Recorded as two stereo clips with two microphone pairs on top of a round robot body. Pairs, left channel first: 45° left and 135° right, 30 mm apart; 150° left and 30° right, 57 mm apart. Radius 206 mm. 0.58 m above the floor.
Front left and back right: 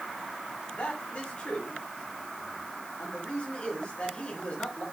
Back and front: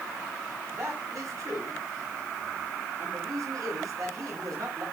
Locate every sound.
0.7 s a man speaking: 5° right, 5 m